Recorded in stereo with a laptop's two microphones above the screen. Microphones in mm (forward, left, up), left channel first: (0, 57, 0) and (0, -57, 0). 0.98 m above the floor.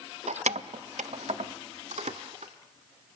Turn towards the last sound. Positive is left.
turn(degrees=-75)  # may be behind; listen again after turning